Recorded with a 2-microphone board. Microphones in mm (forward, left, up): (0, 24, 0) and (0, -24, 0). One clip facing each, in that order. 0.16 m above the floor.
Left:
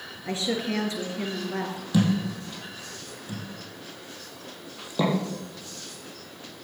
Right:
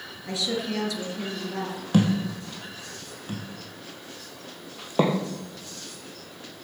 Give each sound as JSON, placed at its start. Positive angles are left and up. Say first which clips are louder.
{"t": 0.2, "sound": "a woman speaking", "louder": "left 1 dB", "side_deg": 30, "distance_m": 3.0}
{"t": 1.9, "sound": "a thud", "louder": "right 1 dB", "side_deg": -50, "distance_m": 2.5}